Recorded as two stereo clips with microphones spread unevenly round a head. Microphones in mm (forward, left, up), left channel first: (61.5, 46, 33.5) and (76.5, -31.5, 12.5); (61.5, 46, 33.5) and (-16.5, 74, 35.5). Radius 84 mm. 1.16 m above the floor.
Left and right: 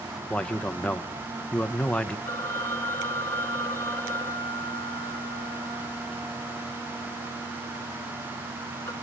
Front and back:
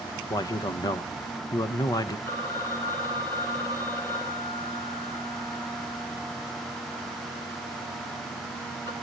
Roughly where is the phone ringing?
Ahead left.